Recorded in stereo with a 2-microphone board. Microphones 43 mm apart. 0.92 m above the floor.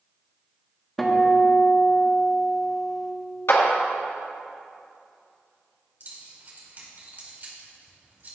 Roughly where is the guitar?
Centre.